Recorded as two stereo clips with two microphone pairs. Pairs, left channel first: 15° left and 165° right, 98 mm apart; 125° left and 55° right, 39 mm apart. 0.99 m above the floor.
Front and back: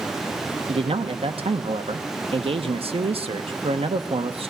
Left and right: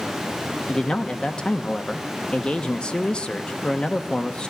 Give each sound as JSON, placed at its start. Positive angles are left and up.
{"t": 0.7, "sound": "a man speaking", "azimuth_deg": -175, "distance_m": 1.1}